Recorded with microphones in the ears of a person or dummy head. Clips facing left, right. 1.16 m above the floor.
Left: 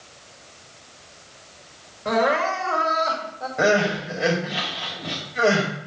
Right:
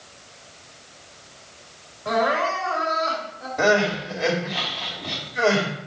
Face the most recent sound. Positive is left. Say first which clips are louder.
# even
turn(degrees=5)  # may be behind; listen again after turning